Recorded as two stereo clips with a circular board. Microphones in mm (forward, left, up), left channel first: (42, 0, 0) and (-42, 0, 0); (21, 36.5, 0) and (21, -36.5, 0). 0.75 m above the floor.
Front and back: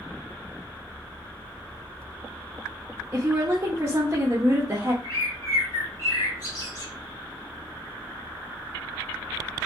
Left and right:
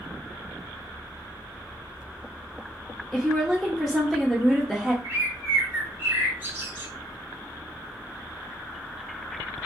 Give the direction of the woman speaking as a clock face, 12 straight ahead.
6 o'clock.